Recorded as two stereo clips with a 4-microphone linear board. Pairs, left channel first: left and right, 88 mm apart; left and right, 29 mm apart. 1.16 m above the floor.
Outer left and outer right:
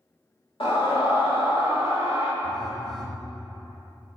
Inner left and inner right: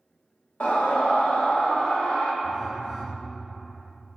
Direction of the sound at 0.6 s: 80° left.